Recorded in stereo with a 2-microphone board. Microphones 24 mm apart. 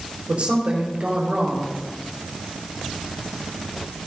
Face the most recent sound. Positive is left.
turn(degrees=-55)  # may be behind; listen again after turning